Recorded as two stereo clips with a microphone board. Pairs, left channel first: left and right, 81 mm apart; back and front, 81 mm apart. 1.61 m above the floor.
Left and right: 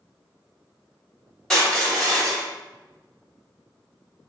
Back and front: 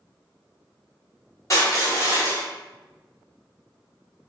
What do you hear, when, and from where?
1.5 s crushing: 170° left, 1.6 m